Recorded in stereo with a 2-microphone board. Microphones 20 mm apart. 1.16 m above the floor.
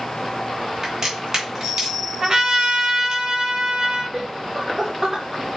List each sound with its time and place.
0.8 s a crack: 25° right (ahead or behind), 3.5 m
2.2 s a trumpet: 40° right (ahead or behind), 4.5 m
4.1 s laughter: 20° right (ahead or behind), 1.2 m